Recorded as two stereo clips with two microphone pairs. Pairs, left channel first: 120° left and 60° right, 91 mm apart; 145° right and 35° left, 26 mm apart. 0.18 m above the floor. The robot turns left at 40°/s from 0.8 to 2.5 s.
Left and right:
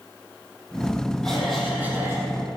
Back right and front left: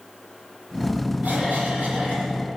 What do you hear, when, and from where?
1.2 s a cough: 40° left, 5.5 m; by 2.3 s 5° right, 5.5 m